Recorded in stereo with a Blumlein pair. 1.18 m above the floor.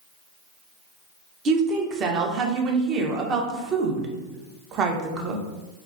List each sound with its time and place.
1.4 s a woman speaking: 30° right, 0.5 m